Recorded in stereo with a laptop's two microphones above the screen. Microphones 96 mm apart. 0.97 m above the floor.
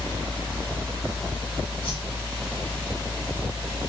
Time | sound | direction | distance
0.0 | a fan | 35° left (ahead or behind) | 1.7 m
1.8 | a whoosh | 65° left (ahead or behind) | 1.7 m